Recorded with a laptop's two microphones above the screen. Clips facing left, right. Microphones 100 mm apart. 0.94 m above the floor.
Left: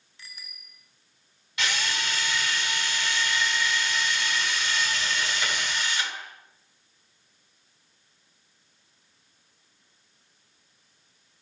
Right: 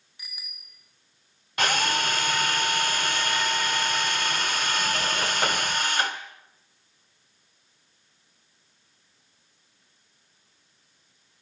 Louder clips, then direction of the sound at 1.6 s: Right 6 dB; 50° right (ahead or behind).